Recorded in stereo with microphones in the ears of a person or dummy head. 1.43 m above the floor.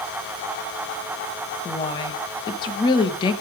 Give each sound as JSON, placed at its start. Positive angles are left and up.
{"t": 1.6, "sound": "a woman speaking", "side_deg": 20, "distance_m": 1.8}